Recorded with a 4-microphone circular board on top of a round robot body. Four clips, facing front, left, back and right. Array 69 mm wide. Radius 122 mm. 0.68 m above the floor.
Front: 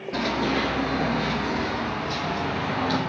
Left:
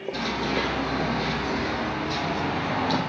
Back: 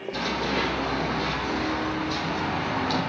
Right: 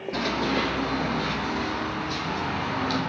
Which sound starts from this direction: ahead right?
Running footsteps, at 0.1 s.